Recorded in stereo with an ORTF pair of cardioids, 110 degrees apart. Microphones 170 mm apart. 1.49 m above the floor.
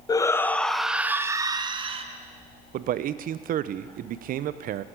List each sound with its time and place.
0.1 s a shout: 20° left, 1.0 m; by 2.0 s 35° right, 1.3 m
2.7 s a man speaking: 55° right, 0.8 m